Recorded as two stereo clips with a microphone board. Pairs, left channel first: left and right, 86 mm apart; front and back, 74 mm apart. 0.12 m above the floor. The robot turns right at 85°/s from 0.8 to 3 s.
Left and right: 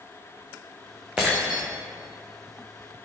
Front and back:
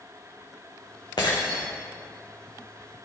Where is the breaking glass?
10° right, 2.5 m; by 1.6 s 30° left, 2.5 m.